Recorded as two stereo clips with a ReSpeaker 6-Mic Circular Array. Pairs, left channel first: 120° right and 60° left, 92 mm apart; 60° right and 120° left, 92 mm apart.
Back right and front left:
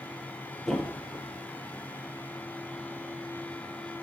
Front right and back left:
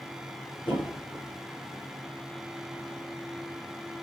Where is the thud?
30° right, 5 m.